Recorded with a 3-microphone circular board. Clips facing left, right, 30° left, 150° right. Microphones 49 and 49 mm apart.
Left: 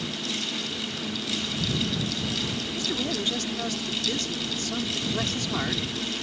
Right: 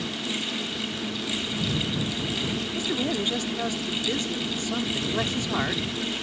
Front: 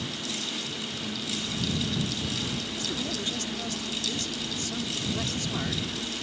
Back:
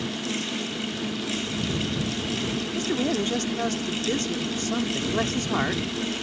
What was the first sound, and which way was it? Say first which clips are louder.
A man speaking: right 2 dB, back 8 dB; 160° right.